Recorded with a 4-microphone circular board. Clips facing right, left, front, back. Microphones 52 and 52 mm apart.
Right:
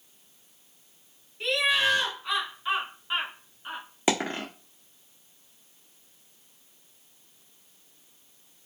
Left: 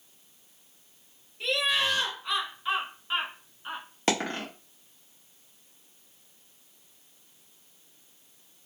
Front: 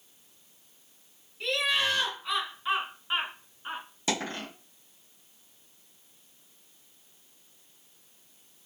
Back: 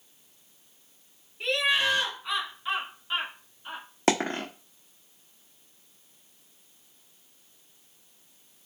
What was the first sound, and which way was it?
Laughter, 165° right.